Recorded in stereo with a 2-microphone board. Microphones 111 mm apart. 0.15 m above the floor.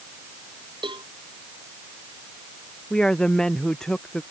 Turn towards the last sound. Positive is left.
turn(degrees=5)  # may be behind; listen again after turning